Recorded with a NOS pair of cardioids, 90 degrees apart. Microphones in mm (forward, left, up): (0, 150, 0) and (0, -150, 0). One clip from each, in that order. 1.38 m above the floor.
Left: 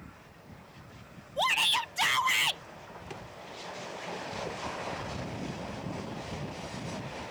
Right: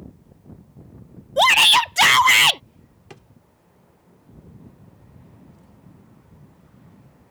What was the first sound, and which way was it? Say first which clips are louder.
A shout: right 13 dB; 65° right.